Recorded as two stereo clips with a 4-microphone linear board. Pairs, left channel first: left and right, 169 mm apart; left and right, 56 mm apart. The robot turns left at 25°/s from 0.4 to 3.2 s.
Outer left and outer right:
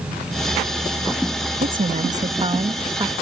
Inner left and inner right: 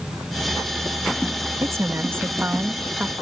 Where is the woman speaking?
120° right; by 3.1 s 155° right.